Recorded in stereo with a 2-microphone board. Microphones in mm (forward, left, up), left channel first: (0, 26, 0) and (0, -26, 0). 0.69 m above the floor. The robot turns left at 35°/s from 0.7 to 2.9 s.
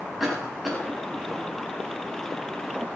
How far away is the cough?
About 6 m.